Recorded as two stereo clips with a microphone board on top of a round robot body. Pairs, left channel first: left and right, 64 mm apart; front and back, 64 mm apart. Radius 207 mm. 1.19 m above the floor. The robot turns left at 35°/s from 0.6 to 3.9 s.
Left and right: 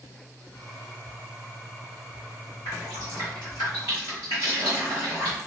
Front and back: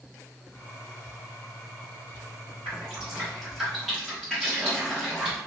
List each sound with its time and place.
2.6 s dripping: 125° left, 0.5 m; by 5.4 s 80° left, 0.5 m